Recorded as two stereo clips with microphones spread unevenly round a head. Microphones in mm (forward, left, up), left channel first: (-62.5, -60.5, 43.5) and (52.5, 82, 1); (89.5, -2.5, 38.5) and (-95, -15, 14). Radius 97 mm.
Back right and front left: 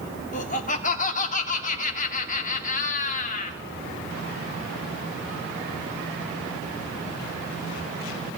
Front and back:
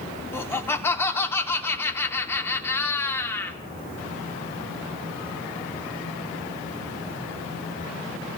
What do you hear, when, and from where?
0.3 s laughter: 75° right, 3 m